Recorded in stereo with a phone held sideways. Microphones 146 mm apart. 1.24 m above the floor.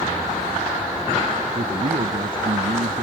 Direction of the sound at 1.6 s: 85° right.